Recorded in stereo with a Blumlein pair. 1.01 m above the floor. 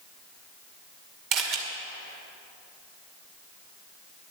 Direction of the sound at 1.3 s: 35° right.